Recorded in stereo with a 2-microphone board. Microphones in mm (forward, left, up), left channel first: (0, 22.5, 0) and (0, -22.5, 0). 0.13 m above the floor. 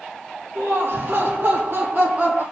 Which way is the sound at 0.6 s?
55° right (ahead or behind).